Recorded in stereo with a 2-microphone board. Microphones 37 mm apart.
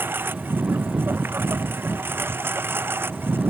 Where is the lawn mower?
75° right (ahead or behind); by 3.5 s 80° right.